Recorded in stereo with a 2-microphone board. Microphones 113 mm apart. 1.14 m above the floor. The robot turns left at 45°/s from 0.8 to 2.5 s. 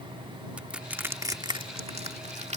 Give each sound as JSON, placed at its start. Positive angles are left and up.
{"t": 0.6, "sound": "crushing", "side_deg": -10}